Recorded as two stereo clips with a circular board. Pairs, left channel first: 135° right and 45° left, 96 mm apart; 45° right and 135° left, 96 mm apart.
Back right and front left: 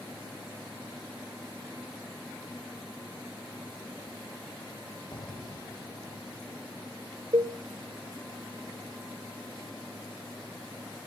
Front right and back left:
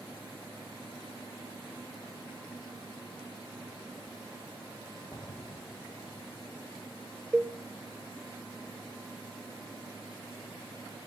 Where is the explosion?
95° right, 0.7 m.